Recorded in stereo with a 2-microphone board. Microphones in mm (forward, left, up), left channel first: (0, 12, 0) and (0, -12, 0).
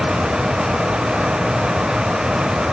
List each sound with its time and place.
Only background noise.